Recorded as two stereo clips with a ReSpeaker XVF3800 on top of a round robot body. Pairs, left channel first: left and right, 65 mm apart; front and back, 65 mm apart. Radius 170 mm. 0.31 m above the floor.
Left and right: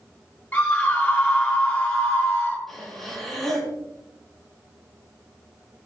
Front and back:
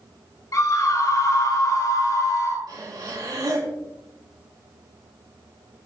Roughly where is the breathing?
Behind.